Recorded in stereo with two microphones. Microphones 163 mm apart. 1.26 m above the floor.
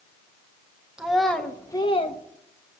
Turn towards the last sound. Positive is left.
turn(degrees=45)  # may be behind; listen again after turning